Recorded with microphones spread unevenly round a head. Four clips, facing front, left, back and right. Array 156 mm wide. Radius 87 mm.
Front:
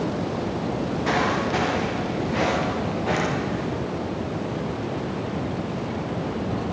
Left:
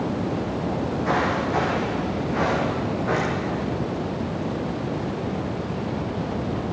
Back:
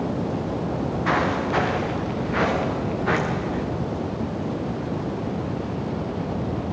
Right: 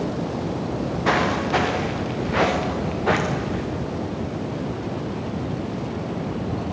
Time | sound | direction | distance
0.7 | footsteps | 90° right | 6 m